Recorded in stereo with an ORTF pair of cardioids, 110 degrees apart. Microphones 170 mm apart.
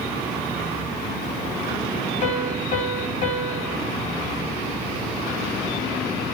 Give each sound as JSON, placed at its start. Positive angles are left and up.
{"t": 2.2, "sound": "a piano", "azimuth_deg": 45, "distance_m": 3.0}